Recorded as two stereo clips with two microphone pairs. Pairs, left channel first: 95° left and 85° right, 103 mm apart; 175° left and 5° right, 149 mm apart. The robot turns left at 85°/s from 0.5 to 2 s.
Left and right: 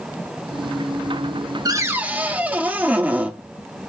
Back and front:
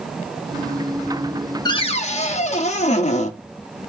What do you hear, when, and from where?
1.6 s a cupboard door: 130° right, 0.5 m; by 3.3 s 160° right, 0.5 m